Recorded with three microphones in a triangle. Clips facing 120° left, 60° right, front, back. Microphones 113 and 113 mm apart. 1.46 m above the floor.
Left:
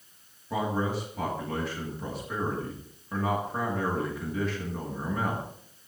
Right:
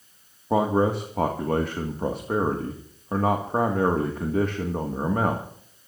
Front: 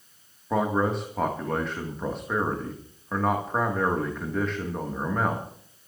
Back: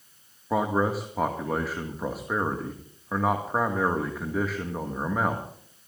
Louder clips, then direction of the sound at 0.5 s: Right 8 dB, even; 95° right.